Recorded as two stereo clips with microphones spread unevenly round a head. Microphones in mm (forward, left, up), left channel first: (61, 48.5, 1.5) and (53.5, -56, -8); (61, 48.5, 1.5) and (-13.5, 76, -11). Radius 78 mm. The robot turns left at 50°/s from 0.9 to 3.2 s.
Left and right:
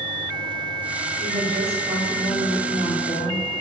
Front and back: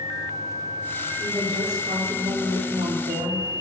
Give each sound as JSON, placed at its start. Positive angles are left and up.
{"t": 1.2, "sound": "a woman speaking", "azimuth_deg": -120, "distance_m": 5.5}